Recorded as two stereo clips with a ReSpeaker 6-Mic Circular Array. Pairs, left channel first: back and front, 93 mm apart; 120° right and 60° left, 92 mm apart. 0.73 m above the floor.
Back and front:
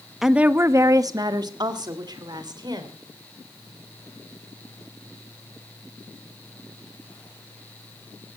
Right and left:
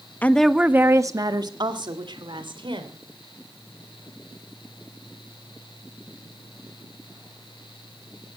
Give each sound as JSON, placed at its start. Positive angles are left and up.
{"t": 0.2, "sound": "a woman speaking", "azimuth_deg": -85, "distance_m": 0.9}